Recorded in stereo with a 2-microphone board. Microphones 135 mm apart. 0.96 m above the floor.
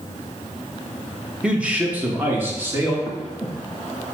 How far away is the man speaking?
About 1.2 m.